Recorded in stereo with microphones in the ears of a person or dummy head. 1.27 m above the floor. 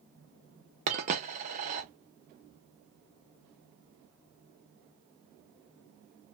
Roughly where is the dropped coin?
Right.